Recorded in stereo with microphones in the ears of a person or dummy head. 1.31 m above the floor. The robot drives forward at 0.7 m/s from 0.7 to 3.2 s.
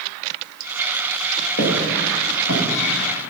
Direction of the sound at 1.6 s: 60° left (ahead or behind).